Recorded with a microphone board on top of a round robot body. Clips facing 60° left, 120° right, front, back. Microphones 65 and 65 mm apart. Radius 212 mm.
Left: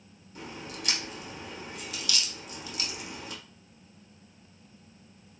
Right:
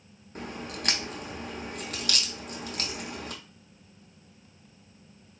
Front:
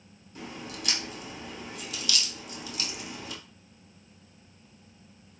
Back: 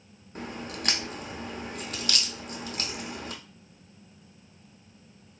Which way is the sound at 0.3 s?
145° right.